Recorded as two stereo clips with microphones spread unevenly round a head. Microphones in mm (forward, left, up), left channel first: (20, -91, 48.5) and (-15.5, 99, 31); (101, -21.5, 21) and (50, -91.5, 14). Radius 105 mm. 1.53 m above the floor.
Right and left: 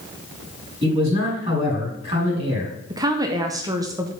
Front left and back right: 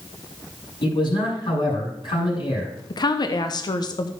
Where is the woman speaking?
25° left, 0.7 m.